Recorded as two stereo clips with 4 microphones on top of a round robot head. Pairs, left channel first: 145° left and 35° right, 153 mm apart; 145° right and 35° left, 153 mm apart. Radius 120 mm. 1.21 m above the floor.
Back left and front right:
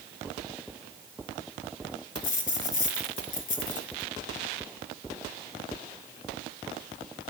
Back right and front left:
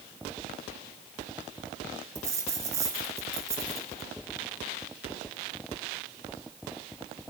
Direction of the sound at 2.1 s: 110° left.